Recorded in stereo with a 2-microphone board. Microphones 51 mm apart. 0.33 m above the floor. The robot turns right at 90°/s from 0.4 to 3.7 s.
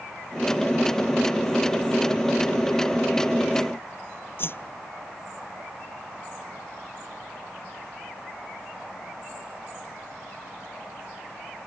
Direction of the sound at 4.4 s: 45° left (ahead or behind).